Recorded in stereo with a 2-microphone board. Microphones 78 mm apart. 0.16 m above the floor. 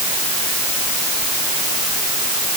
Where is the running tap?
I don't hear a running tap.